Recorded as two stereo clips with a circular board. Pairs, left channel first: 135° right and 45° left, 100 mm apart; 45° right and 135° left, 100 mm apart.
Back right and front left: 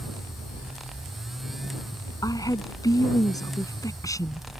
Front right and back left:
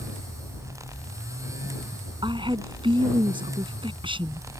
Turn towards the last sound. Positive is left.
turn(degrees=170)